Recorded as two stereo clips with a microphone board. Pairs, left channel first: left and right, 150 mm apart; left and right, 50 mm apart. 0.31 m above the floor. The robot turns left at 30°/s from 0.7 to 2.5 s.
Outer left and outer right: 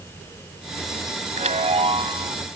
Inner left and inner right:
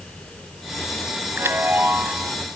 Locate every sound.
1.4 s a chime: 115° right; by 2.4 s 145° right